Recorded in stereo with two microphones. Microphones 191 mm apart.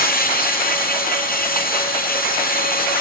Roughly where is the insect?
Left.